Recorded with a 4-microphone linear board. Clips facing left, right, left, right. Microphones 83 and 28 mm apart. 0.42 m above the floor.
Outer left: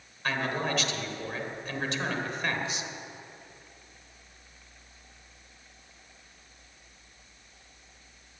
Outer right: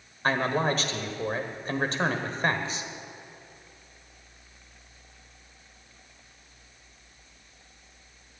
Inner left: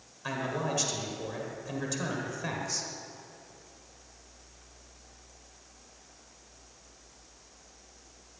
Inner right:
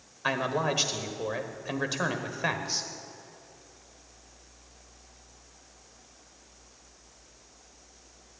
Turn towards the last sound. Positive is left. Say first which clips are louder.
# outer right 5 dB, inner right 5 dB
turn(degrees=-40)  # may be behind; listen again after turning